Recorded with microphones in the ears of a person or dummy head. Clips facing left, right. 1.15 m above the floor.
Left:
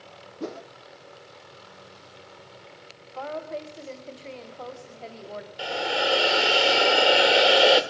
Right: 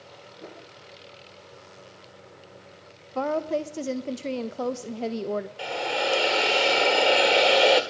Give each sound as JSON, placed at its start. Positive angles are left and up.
{"t": 0.4, "sound": "a whoosh", "side_deg": 65, "distance_m": 0.7}
{"t": 3.1, "sound": "a woman speaking", "side_deg": -55, "distance_m": 0.8}
{"t": 5.6, "sound": "a hiss", "side_deg": 10, "distance_m": 1.6}